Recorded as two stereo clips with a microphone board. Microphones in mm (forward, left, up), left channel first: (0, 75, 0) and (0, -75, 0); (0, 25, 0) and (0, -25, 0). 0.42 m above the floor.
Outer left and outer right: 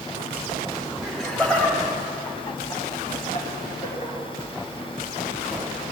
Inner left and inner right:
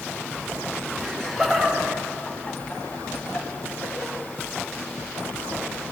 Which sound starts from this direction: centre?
Laughter, at 1.0 s.